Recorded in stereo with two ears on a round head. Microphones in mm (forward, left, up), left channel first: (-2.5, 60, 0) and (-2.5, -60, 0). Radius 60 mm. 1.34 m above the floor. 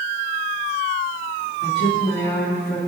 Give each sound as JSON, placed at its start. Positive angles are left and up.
{"t": 1.6, "sound": "a woman speaking", "side_deg": 90, "distance_m": 3.0}